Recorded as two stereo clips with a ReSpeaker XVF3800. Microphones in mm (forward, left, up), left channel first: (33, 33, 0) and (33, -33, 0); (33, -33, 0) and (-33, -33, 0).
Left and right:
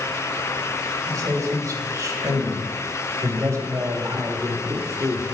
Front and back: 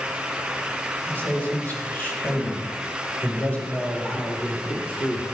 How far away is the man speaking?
About 4 m.